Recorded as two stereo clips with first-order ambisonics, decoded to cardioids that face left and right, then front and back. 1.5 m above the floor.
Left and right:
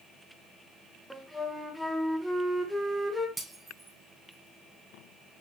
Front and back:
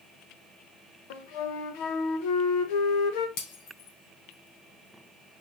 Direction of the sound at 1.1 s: 5° left.